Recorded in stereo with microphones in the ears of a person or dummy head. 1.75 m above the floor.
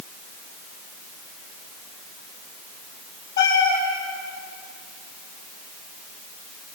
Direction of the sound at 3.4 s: 65° left (ahead or behind).